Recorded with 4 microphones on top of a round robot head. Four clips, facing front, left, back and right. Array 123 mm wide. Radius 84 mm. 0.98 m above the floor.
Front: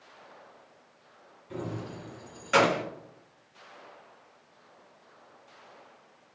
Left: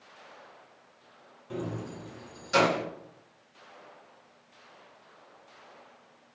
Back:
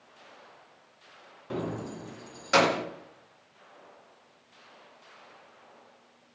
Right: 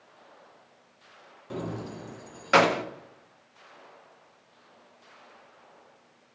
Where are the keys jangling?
165° right, 0.6 m; by 2.8 s 100° right, 0.8 m.